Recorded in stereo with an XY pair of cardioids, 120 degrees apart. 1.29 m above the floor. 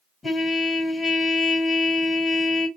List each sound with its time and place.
0.2 s a trumpet: 20° left, 2 m